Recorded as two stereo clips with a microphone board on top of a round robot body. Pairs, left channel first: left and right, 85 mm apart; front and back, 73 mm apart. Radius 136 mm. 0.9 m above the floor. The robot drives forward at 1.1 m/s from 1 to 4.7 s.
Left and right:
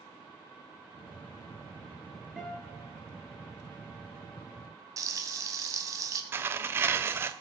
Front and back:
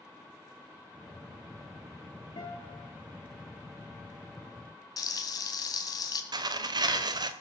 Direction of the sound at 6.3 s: 155° right.